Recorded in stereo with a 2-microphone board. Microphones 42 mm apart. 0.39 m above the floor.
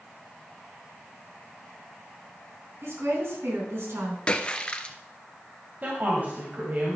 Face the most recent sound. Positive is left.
turn(degrees=-40)  # may be behind; listen again after turning